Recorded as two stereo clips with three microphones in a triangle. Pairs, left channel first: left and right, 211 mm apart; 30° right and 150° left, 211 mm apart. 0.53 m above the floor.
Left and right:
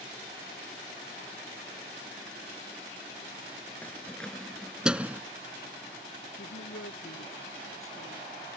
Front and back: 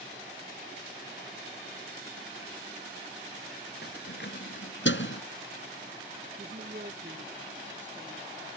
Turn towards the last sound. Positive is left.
turn(degrees=95)